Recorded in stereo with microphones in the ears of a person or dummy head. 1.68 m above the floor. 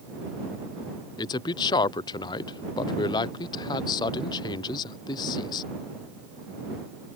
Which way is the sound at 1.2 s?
20° left (ahead or behind).